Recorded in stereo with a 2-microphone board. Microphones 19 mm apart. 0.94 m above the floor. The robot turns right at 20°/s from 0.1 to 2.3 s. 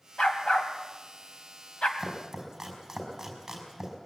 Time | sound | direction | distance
0.2 | a dog barking | 65° left (ahead or behind) | 2.5 m
2.0 | chopping | 10° right (ahead or behind) | 5 m